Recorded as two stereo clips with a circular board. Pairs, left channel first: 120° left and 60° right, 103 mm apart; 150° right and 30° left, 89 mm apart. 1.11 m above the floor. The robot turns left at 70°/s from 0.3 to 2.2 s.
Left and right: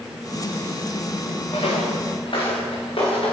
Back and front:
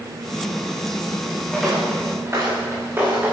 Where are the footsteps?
130° left, 5 m; by 3.3 s 100° left, 6 m.